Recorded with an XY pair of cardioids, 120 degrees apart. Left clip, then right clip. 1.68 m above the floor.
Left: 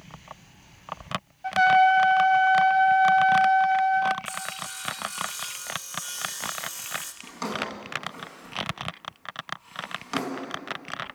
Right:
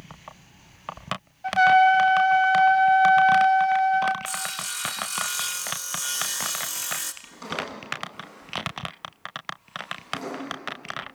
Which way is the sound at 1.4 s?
10° right.